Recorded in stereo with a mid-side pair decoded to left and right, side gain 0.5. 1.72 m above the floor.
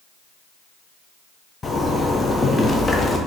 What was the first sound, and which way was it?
A zipper, 25° left.